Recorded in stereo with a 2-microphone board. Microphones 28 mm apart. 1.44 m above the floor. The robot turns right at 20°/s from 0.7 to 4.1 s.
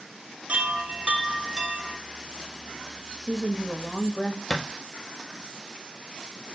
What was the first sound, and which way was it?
A chime, 45° right (ahead or behind).